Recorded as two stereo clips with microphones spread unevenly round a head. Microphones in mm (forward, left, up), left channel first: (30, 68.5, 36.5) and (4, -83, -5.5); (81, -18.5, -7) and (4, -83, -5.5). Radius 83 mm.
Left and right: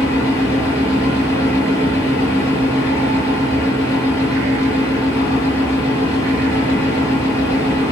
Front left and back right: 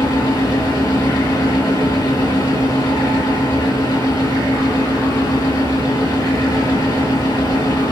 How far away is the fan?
About 1.5 m.